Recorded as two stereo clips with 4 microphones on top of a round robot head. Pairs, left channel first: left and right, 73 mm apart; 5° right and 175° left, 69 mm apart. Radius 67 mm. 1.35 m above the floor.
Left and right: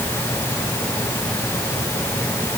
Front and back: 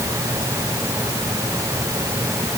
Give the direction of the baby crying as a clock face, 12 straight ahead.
I don't hear a baby crying.